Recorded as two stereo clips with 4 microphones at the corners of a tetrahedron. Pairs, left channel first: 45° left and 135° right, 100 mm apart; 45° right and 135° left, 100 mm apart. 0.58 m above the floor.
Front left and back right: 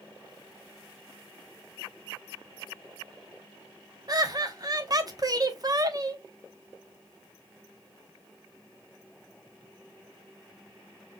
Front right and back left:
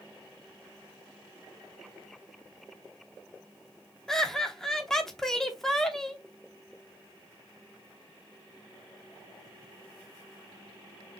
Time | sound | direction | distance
4.1 | laughter | 130° right | 0.9 m